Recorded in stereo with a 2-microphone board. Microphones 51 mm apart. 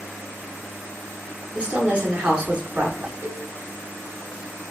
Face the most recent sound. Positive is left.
turn(degrees=-45)  # may be behind; listen again after turning